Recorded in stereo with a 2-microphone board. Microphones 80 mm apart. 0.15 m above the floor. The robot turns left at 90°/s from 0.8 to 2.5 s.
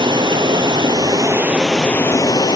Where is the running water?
95° right, 0.7 m; by 2.6 s 110° left, 0.7 m.